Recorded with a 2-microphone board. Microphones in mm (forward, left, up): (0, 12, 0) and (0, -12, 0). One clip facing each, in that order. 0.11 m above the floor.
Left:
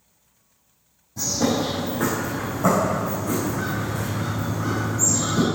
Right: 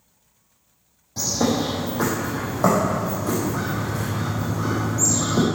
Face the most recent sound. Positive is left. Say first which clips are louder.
# right 1 dB
turn(degrees=-75)  # may be behind; listen again after turning